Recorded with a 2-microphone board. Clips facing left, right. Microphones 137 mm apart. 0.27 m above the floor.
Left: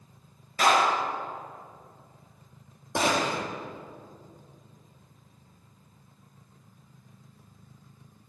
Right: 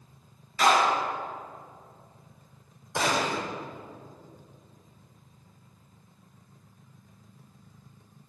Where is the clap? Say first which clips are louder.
Even; 55° left (ahead or behind), 4 m.